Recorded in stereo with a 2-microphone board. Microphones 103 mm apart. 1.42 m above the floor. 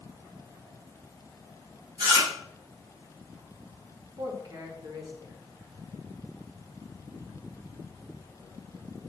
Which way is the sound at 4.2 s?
45° right (ahead or behind).